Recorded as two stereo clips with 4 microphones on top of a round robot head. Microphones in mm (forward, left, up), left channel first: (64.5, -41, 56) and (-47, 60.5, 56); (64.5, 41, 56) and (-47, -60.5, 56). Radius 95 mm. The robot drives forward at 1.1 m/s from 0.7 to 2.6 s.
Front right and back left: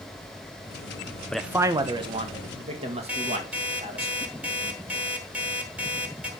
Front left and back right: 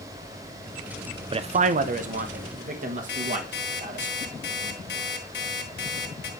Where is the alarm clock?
55° left, 2.5 m.